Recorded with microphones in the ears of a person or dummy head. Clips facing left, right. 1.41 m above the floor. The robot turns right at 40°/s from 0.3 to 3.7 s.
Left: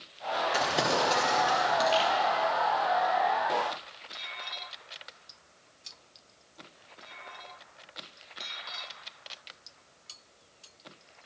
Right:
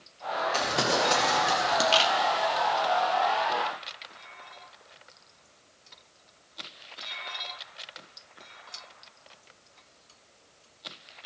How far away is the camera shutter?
About 1.0 m.